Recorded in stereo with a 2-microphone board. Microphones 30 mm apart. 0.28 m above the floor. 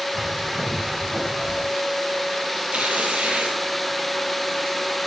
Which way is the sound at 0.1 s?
15° right (ahead or behind).